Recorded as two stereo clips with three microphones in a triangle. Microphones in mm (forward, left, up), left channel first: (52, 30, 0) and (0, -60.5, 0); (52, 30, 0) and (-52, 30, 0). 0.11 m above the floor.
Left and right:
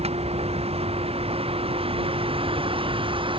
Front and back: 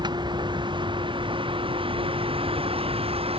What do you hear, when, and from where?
0.0 s a vehicle: 135° right; by 3.4 s 155° right